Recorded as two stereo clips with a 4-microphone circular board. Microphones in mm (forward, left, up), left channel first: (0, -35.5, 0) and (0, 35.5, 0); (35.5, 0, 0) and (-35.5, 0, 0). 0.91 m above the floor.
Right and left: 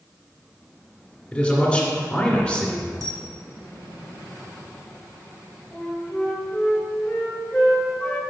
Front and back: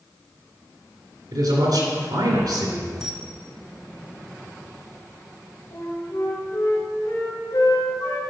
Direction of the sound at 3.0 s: 100° left.